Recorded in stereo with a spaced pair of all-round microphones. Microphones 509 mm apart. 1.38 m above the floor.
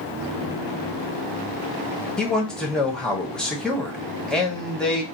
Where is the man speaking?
Centre (ahead or behind), 0.8 m.